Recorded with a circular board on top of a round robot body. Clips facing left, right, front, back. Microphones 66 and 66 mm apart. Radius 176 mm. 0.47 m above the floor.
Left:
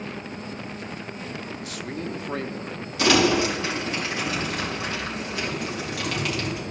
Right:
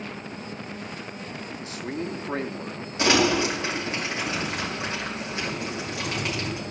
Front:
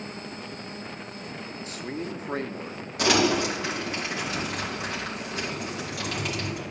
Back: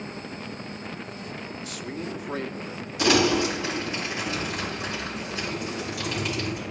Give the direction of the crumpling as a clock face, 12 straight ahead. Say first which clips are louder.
Left 2 dB, back 1 dB; 1 o'clock.